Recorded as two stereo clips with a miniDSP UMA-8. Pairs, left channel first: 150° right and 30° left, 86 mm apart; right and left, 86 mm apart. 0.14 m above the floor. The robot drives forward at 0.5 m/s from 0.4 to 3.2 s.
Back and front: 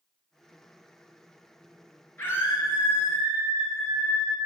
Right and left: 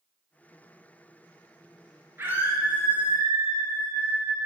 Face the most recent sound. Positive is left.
turn(degrees=160)